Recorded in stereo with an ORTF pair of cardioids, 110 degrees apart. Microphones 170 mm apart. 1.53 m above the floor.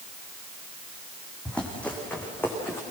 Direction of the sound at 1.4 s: 5° left.